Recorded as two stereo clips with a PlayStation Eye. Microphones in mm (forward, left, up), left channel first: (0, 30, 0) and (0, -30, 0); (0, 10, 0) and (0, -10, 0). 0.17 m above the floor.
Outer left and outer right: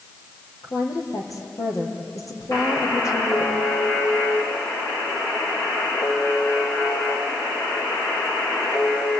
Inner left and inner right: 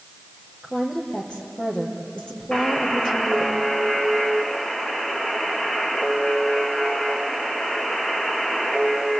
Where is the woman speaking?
75° left (ahead or behind), 4.5 m.